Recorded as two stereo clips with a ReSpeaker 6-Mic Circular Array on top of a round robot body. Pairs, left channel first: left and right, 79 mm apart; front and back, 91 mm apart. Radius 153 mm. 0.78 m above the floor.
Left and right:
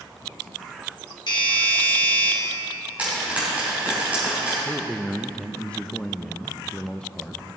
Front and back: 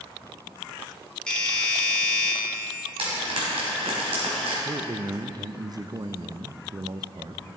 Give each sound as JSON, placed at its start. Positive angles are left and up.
{"t": 1.3, "sound": "a doorbell", "azimuth_deg": 80, "distance_m": 2.0}
{"t": 3.0, "sound": "frying", "azimuth_deg": -165, "distance_m": 3.0}
{"t": 4.7, "sound": "a man speaking", "azimuth_deg": 165, "distance_m": 0.6}